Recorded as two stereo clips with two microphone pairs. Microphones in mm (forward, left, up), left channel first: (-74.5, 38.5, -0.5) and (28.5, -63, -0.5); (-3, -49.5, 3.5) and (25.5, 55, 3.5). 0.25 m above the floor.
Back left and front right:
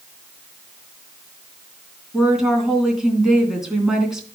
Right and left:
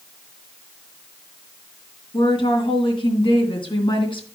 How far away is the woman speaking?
About 3 m.